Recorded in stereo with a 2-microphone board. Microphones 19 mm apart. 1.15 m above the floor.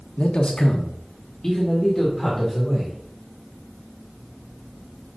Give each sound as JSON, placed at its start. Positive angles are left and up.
{"t": 0.2, "sound": "a man speaking", "side_deg": 70, "distance_m": 1.0}